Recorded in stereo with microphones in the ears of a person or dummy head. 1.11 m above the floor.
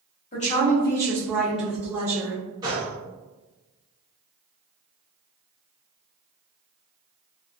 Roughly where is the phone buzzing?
No phone buzzing in this recording.